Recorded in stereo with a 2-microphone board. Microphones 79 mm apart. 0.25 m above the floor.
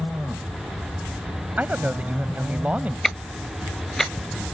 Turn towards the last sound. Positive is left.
turn(degrees=5)  # may be behind; listen again after turning